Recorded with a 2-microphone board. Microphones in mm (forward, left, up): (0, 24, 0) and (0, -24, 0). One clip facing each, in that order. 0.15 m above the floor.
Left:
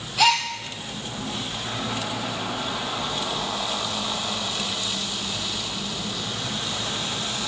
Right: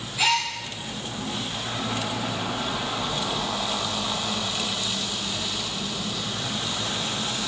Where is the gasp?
80° left, 1.3 m.